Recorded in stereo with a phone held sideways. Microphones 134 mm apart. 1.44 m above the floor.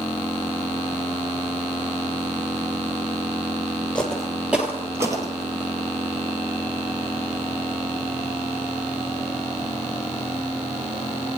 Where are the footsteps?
10° left (ahead or behind), 1.7 m; by 5.7 s 35° right (ahead or behind), 2.0 m.